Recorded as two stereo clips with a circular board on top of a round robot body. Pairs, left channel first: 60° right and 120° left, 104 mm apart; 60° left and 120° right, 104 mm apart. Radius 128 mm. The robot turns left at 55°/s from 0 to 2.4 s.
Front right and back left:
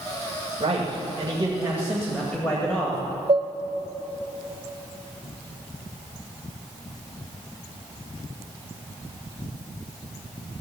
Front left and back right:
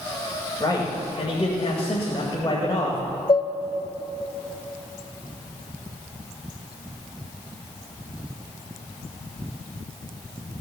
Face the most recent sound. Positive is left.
turn(degrees=90)